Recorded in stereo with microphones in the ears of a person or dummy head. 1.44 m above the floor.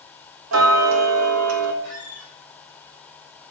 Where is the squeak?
60° right (ahead or behind), 2 m.